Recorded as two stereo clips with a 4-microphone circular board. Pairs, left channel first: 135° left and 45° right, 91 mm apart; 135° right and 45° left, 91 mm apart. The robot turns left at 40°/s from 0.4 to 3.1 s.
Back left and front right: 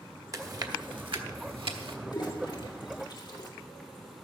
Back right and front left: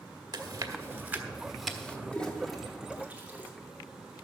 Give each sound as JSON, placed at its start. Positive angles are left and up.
{"t": 0.3, "sound": "chewing", "azimuth_deg": 5, "distance_m": 1.2}
{"t": 2.1, "sound": "a toilet flushing", "azimuth_deg": 155, "distance_m": 1.9}